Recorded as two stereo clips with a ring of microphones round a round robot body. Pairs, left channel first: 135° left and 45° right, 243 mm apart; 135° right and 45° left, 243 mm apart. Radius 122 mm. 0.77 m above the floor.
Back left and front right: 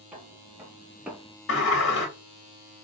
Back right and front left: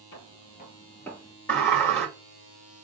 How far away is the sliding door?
About 1.3 m.